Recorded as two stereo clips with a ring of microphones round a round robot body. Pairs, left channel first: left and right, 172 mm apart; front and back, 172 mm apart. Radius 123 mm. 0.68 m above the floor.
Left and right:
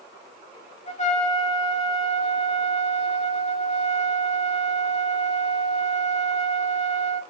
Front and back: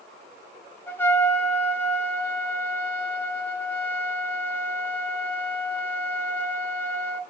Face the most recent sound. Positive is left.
turn(degrees=75)